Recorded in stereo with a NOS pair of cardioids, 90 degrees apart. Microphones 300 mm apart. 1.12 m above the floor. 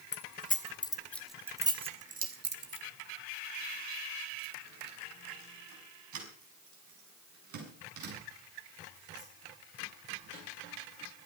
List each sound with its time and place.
0.1 s keys jangling: 35° left, 2.5 m; by 11.3 s 75° right, 12 m